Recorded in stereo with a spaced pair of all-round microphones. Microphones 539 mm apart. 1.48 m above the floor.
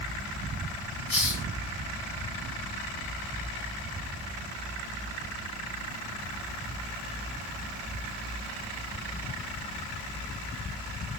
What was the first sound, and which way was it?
A hiss, 55° left (ahead or behind).